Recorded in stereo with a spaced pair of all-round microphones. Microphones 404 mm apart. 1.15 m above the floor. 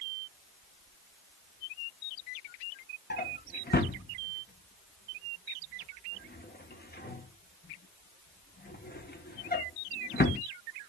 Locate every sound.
3.1 s a drawer: 25° left (ahead or behind), 0.9 m